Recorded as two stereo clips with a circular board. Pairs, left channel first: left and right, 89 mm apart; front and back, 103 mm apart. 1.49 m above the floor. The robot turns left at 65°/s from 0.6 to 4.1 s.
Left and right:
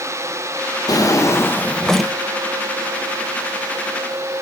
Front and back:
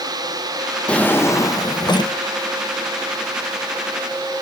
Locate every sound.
0.9 s a drawer: 75° left, 0.8 m; by 2.1 s 5° right, 0.8 m